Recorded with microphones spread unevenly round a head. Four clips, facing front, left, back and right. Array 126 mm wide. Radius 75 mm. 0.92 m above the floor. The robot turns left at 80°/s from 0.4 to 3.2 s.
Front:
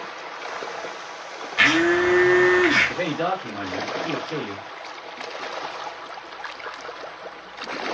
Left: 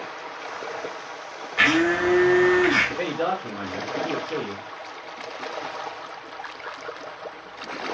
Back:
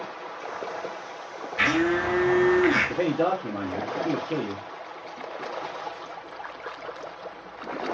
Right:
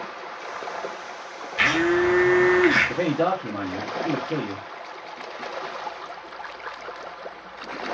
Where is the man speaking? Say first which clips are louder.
Right 3 dB, back 1 dB; 95° right, 0.9 m; by 4.6 s 120° right, 0.9 m.